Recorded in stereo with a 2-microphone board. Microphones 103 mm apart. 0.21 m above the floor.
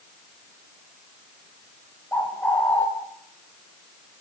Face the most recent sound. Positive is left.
turn(degrees=15)  # may be behind; listen again after turning